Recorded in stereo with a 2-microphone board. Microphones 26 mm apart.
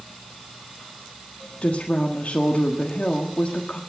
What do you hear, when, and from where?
1.6 s a woman speaking: 60° left (ahead or behind), 1.5 m